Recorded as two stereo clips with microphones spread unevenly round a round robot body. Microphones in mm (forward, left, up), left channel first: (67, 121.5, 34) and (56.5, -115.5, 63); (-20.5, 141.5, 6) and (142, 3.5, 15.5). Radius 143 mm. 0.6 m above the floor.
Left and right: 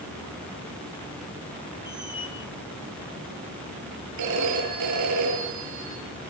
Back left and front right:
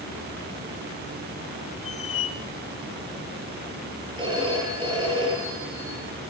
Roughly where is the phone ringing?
Behind right.